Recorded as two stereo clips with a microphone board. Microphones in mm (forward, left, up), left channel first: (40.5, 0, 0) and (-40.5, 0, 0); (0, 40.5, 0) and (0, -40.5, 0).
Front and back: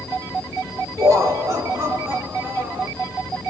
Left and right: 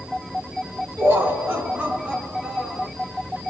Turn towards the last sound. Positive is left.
turn(degrees=180)